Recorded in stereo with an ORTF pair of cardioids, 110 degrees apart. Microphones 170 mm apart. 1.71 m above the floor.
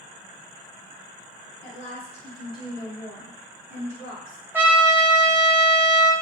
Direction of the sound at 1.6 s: 45° left.